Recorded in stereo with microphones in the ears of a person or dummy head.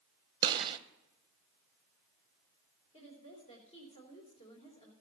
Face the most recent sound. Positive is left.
turn(degrees=35)  # may be behind; listen again after turning